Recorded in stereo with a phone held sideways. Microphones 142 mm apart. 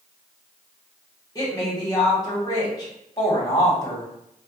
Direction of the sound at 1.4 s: 25° left (ahead or behind).